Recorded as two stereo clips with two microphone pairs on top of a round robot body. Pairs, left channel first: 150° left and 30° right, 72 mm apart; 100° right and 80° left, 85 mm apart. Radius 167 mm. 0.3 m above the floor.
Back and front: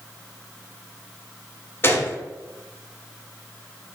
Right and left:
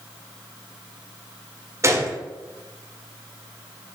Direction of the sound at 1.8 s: 105° left.